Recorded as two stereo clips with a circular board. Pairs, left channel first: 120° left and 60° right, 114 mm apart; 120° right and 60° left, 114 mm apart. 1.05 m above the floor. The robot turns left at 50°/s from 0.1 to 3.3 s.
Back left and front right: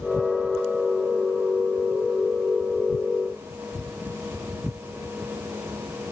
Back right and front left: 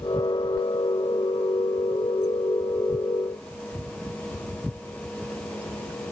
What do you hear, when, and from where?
Only background noise.